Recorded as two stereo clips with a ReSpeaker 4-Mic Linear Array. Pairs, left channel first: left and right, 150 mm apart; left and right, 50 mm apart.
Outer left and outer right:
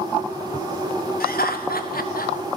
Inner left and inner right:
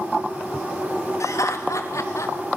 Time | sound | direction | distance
1.2 | laughter | 90° left | 3.5 m